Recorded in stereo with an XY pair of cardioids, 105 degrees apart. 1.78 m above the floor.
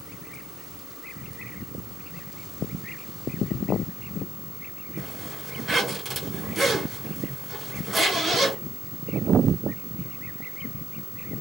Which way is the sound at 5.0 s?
30° right.